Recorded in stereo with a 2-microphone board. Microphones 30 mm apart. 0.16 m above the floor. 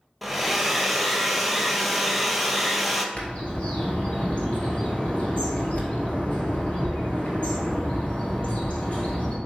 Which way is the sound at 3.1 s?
45° left (ahead or behind).